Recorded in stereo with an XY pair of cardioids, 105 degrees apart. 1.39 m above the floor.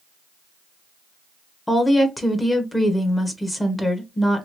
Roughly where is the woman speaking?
Ahead.